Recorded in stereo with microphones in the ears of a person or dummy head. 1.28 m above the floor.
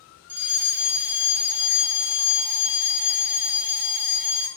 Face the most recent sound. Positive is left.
turn(degrees=-10)  # may be behind; listen again after turning